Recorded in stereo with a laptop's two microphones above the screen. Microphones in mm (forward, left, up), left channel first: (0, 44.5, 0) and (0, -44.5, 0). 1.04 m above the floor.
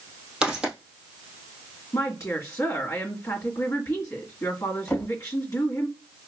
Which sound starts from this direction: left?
A woman speaking, at 1.9 s.